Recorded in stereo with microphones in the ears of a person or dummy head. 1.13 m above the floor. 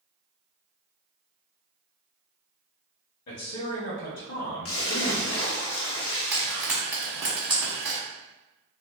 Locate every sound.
3.3 s a man speaking: 70° left (ahead or behind), 1.1 m
4.7 s a splash: 85° left, 1.2 m
6.3 s frying: 10° right (ahead or behind), 1.3 m